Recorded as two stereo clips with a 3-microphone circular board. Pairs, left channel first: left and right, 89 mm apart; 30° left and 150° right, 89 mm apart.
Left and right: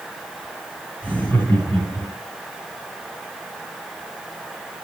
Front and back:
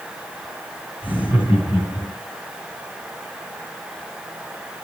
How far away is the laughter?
About 4.5 m.